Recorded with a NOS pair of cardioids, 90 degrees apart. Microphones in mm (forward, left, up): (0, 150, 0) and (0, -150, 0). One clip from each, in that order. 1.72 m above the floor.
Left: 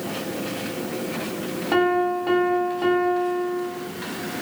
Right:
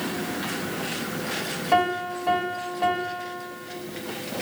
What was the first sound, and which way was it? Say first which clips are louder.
A piano: left 2 dB; 10° left.